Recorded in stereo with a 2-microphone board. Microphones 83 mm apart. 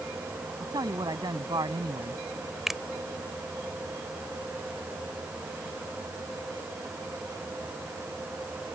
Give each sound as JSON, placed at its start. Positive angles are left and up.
{"t": 0.6, "sound": "a man speaking", "side_deg": -55}
{"t": 2.7, "sound": "a finger snap", "side_deg": -5}